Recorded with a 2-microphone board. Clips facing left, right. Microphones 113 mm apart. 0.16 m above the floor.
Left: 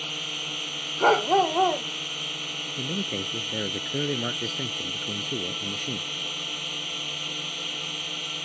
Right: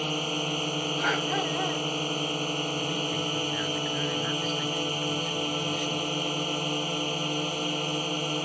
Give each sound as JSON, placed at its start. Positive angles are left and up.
{"t": 0.0, "sound": "a drone", "side_deg": -40}
{"t": 1.0, "sound": "a dog barking", "side_deg": 45}
{"t": 2.8, "sound": "a man speaking", "side_deg": 60}